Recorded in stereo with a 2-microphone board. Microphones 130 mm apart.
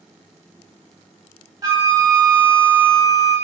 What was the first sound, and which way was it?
A flute, 30° right (ahead or behind).